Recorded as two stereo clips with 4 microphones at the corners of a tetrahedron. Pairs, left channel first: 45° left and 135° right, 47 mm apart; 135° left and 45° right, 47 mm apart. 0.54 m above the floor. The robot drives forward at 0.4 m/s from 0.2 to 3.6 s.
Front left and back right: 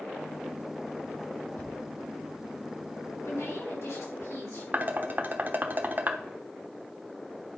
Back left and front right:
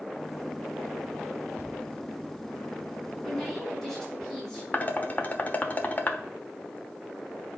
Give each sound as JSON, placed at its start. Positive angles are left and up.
{"t": 1.6, "sound": "a thud", "azimuth_deg": -5, "distance_m": 1.5}
{"t": 3.2, "sound": "a woman speaking", "azimuth_deg": 45, "distance_m": 5.0}
{"t": 4.7, "sound": "dishes clattering", "azimuth_deg": 180, "distance_m": 1.0}